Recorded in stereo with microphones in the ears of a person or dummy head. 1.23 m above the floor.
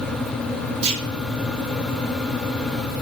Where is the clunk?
30° right (ahead or behind), 0.6 m.